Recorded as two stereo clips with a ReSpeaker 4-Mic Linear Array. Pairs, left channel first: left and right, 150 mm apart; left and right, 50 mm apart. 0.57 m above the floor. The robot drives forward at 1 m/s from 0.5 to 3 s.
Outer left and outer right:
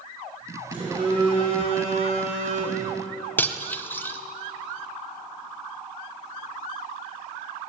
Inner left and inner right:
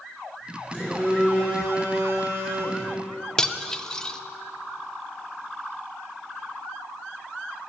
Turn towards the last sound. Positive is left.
turn(degrees=15)  # may be behind; listen again after turning